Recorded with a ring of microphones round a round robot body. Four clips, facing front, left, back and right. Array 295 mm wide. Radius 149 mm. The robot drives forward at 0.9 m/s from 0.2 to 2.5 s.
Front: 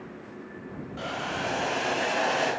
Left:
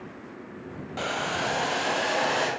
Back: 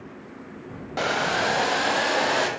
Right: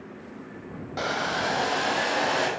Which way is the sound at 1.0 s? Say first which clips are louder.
Right 2 dB, back 8 dB; 175° right.